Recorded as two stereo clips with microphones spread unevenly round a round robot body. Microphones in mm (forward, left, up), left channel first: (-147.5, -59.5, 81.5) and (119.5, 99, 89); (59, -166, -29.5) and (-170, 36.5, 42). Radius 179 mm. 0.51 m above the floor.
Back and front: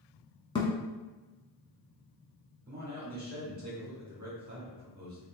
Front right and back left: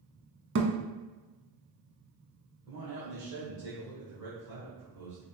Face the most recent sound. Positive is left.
turn(degrees=80)